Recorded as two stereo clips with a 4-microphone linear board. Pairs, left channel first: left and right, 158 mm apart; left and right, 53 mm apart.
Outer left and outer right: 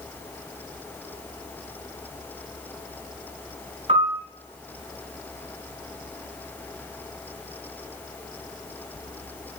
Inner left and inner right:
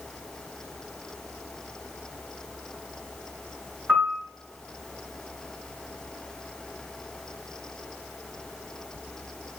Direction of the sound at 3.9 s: 40° right (ahead or behind).